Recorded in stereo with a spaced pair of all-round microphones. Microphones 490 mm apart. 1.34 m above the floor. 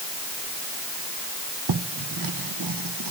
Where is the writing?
45° right (ahead or behind), 0.7 m.